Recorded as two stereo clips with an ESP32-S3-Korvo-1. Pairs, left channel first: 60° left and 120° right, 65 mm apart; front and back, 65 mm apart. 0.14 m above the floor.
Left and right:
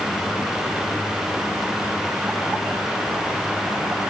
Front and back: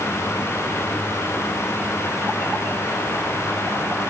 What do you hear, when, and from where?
Only background noise.